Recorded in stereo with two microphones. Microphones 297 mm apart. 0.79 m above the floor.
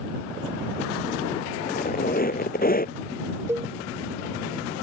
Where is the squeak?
30° left (ahead or behind).